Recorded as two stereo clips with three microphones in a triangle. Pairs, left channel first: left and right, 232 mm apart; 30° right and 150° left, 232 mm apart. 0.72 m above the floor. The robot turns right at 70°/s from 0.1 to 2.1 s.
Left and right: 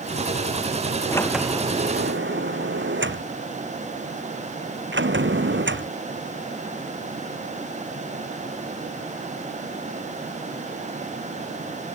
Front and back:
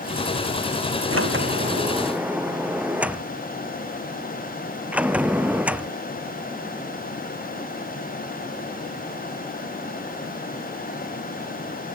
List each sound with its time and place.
1.1 s a sliding door: 165° left; by 6.0 s 125° right